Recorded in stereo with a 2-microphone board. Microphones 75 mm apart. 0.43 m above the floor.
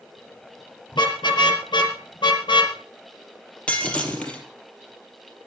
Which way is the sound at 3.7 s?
15° left (ahead or behind).